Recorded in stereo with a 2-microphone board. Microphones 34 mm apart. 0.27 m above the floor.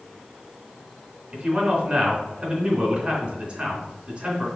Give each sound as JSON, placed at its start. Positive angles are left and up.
{"t": 1.3, "sound": "a man speaking", "side_deg": -35, "distance_m": 3.0}